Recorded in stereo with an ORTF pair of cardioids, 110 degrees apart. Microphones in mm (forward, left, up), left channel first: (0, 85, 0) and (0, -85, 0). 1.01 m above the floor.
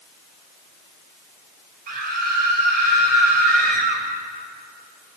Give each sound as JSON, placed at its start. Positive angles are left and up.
{"t": 1.9, "sound": "a scream", "azimuth_deg": -55, "distance_m": 5.5}